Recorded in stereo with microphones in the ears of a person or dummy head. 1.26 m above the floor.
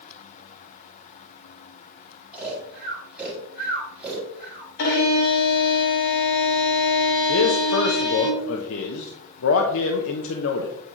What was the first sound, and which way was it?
Snoring, centre (ahead or behind).